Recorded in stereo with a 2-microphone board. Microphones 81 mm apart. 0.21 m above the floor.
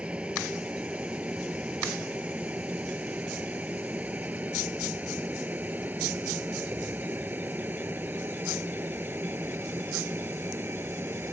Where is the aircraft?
15° right (ahead or behind); by 11.3 s 30° right (ahead or behind).